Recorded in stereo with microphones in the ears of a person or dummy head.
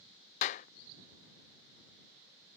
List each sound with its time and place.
0.4 s a clap: 40° left (ahead or behind)